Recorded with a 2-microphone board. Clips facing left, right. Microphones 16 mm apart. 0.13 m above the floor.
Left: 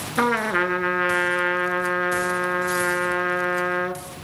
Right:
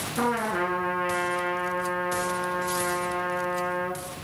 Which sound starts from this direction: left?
A trumpet, at 0.2 s.